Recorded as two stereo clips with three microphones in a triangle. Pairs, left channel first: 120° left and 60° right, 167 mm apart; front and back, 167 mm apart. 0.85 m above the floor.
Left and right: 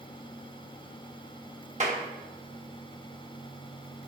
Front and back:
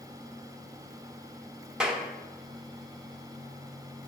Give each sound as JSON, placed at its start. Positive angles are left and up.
{"t": 1.8, "sound": "a clap", "azimuth_deg": -95, "distance_m": 1.1}